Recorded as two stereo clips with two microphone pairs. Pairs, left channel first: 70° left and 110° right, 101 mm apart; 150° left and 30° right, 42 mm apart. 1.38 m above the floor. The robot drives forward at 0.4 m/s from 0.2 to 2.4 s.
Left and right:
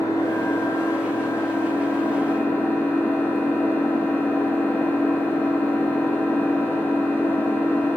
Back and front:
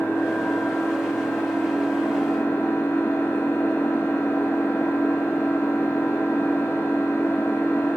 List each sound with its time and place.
0.0 s an engine running: 130° left, 3 m; by 8.0 s 140° left, 3.5 m